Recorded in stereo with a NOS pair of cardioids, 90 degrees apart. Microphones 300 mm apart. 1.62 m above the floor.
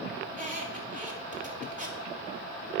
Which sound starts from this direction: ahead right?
A squeak, at 0.3 s.